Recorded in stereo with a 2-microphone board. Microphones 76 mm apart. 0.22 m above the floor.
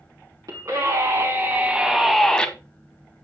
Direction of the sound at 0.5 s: 55° right (ahead or behind).